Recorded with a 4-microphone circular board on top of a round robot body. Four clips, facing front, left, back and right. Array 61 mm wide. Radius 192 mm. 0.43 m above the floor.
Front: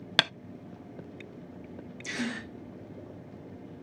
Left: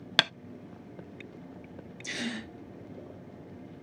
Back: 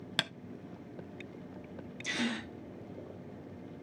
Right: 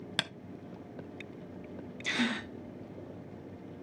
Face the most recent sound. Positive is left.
turn(degrees=-95)